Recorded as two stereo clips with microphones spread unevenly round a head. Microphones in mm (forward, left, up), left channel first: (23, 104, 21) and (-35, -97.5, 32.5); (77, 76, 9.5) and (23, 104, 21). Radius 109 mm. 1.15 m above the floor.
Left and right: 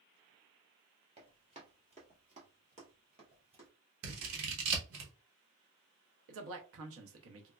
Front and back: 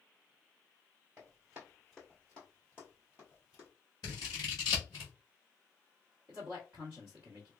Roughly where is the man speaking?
Behind right.